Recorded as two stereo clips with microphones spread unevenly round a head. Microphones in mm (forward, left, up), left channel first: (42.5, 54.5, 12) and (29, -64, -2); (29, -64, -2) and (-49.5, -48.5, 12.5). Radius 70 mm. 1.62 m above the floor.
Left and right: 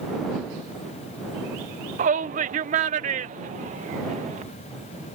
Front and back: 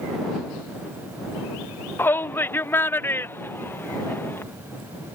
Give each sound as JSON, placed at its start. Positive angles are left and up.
{"t": 2.0, "sound": "a shout", "azimuth_deg": -75}